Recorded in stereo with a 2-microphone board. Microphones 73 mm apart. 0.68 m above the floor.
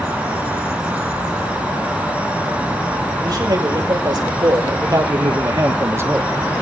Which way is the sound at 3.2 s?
70° right (ahead or behind).